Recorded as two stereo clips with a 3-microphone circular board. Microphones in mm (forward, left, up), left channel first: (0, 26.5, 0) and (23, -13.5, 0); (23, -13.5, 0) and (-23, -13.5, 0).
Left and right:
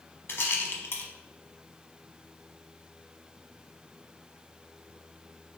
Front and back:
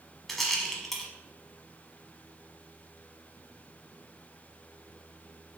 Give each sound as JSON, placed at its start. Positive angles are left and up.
{"t": 0.3, "sound": "a rattle", "azimuth_deg": 85, "distance_m": 0.8}